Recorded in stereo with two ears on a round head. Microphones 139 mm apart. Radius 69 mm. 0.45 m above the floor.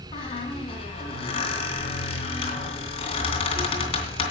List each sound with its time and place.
0.1 s a squeak: 35° left (ahead or behind), 3 m